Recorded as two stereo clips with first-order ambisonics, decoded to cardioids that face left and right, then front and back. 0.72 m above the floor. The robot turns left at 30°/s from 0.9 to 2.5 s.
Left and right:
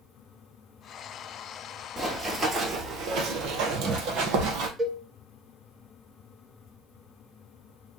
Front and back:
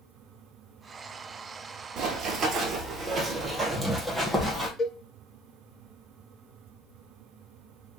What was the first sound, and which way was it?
Running footsteps, 160° right.